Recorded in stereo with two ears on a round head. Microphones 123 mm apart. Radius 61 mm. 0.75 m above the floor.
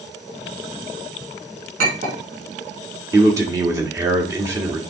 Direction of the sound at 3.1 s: 25° right (ahead or behind).